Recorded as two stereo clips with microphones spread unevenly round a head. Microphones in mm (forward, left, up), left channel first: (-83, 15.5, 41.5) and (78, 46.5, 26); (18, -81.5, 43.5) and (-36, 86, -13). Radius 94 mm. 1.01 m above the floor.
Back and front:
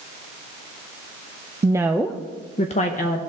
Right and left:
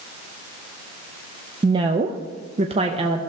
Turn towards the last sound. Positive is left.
turn(degrees=155)